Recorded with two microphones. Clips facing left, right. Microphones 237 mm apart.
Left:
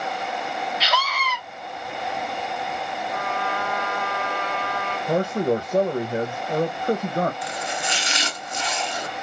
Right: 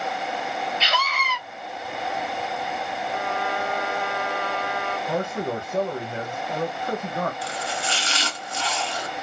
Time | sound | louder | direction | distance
0.8 | a scream | left 1 dB | 25° right (ahead or behind) | 3.5 m
3.1 | a trumpet | right 1 dB | 10° right (ahead or behind) | 3 m
5.1 | a man speaking | left 7 dB | 40° left (ahead or behind) | 0.7 m
7.4 | chopping | left 1 dB | 20° left (ahead or behind) | 0.9 m